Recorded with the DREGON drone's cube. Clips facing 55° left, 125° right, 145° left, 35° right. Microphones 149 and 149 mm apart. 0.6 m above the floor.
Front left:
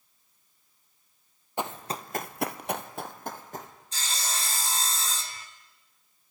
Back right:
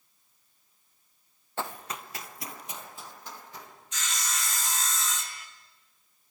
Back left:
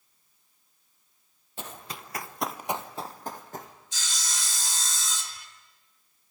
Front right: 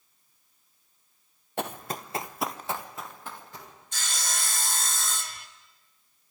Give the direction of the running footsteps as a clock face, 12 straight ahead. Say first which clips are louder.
Front left 3 dB, front right 8 dB; 1 o'clock.